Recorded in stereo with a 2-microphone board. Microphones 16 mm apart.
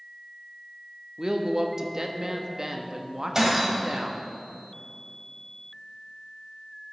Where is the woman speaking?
40° right (ahead or behind), 0.7 m.